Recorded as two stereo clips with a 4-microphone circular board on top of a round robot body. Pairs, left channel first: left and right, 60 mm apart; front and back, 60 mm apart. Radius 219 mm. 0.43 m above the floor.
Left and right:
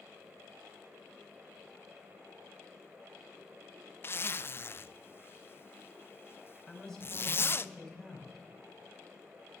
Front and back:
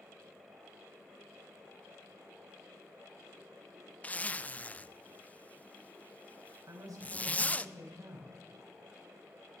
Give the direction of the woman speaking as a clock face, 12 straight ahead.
6 o'clock.